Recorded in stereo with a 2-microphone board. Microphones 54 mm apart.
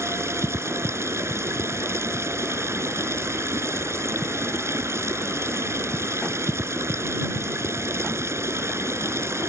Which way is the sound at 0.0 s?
60° right (ahead or behind).